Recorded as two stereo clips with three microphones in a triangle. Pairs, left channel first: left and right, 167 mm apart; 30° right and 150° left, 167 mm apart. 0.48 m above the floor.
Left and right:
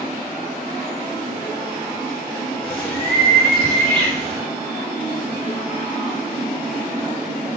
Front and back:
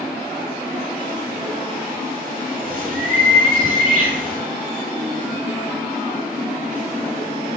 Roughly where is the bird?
Behind.